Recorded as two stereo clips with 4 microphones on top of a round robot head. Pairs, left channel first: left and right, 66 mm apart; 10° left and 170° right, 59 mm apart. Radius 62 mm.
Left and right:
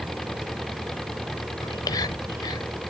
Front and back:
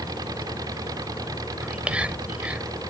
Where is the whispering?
120° left.